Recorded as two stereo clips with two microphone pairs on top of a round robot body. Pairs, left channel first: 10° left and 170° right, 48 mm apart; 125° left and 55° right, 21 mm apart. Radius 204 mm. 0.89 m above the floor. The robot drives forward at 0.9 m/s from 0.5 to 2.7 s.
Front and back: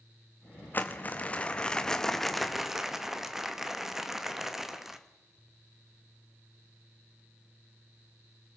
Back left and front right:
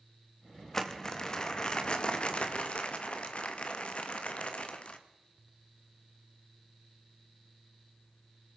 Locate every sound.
0.7 s crumpling: 60° left, 2.5 m; by 5.0 s 110° left, 2.5 m